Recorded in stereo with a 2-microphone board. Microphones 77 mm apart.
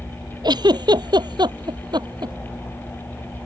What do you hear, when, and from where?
0.4 s a giggle: 65° right (ahead or behind)